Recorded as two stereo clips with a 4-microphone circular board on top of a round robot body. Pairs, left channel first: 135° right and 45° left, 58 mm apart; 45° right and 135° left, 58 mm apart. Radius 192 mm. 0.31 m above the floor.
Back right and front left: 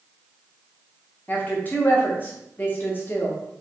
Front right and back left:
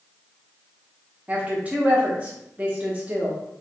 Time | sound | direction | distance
1.3 | a woman speaking | 170° right | 1.2 m